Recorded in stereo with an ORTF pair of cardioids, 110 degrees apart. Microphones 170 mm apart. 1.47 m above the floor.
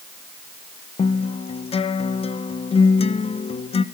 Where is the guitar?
35° left, 1.7 m.